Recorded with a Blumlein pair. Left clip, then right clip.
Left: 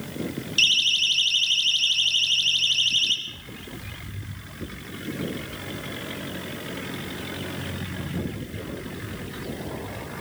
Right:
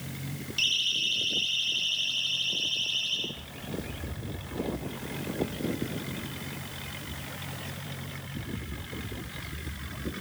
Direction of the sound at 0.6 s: 65° left.